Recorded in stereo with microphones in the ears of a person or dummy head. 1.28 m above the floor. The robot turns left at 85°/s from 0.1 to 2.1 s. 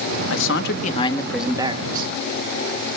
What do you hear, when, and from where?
0.3 s a man speaking: 90° left, 1.4 m; by 2.1 s 65° right, 1.4 m